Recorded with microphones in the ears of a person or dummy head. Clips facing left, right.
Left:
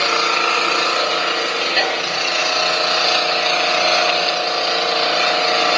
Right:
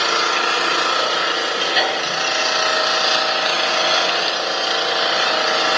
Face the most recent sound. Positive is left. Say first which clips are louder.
# left 1 dB
turn(degrees=-5)  # may be behind; listen again after turning